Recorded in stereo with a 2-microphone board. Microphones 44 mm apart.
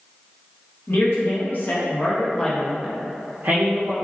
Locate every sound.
0.9 s a man speaking: 60° left (ahead or behind), 1.3 m; by 4.0 s 55° right (ahead or behind), 0.8 m